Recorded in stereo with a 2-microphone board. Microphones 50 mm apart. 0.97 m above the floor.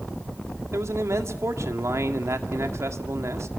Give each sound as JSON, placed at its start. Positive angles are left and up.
{"t": 0.7, "sound": "a man speaking", "side_deg": -70, "distance_m": 2.0}